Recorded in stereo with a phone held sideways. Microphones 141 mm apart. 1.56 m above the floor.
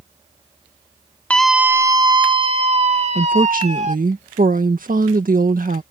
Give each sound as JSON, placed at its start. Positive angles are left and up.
{"t": 1.3, "sound": "a scream", "side_deg": 10}
{"t": 3.1, "sound": "a woman speaking", "side_deg": -85}